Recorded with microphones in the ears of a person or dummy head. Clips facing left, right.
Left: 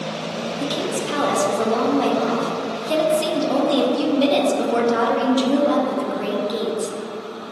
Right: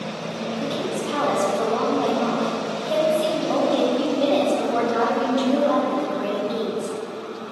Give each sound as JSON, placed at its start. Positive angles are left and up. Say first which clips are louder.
{"t": 0.6, "sound": "a woman speaking", "louder": "left 2 dB", "side_deg": 30, "distance_m": 0.6}